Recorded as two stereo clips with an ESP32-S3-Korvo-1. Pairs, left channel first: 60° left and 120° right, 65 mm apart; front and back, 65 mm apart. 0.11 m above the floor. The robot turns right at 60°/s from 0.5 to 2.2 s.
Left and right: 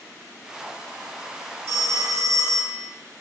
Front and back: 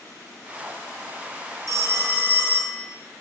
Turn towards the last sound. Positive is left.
turn(degrees=-130)